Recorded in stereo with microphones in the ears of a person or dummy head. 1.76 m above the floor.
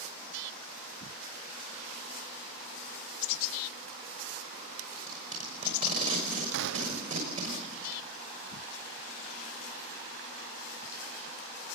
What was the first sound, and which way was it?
Tape being pulled, 40° right (ahead or behind).